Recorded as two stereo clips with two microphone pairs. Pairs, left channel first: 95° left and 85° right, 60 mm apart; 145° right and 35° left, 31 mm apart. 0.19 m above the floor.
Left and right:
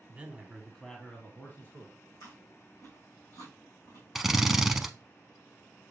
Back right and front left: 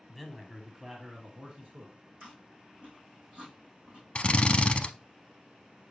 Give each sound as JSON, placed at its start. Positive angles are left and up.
{"t": 0.1, "sound": "a man speaking", "azimuth_deg": -60, "distance_m": 1.1}
{"t": 2.2, "sound": "chewing", "azimuth_deg": 80, "distance_m": 3.0}
{"t": 4.2, "sound": "a drill", "azimuth_deg": -170, "distance_m": 0.5}